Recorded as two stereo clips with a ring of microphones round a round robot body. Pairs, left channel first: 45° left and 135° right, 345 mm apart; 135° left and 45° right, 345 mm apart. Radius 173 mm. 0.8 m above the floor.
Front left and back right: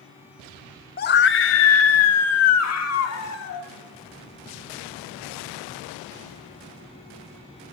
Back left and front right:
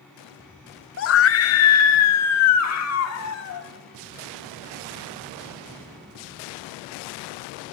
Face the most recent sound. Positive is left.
turn(degrees=90)